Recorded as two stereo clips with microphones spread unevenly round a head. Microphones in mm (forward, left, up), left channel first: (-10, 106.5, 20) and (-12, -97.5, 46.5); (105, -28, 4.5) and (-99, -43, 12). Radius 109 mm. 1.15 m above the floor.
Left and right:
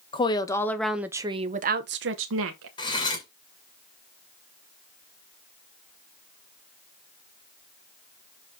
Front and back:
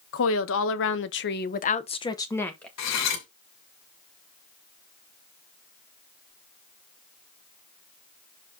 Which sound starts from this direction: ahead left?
A woman speaking, at 0.1 s.